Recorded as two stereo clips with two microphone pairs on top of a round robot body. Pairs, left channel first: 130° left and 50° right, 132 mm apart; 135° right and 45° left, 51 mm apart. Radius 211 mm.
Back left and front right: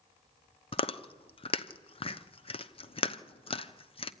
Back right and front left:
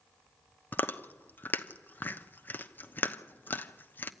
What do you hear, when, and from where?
0.7 s chewing: 175° left, 1.0 m